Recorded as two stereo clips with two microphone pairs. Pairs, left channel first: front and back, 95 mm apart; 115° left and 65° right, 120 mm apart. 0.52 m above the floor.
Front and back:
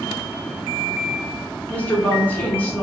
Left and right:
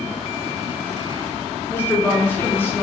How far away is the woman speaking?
About 0.8 m.